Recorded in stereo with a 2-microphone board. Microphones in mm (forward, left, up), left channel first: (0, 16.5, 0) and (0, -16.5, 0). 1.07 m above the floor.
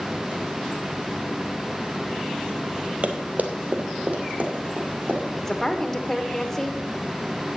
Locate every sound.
3.0 s running footsteps: 40° right (ahead or behind), 1.3 m; by 5.2 s 35° right (ahead or behind), 3 m
5.4 s a woman speaking: 15° left (ahead or behind), 1.1 m